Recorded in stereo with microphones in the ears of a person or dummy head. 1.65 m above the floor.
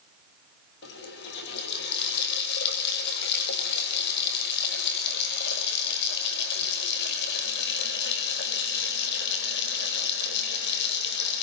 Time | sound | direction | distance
0.8 | a running tap | 60° left (ahead or behind) | 4.5 m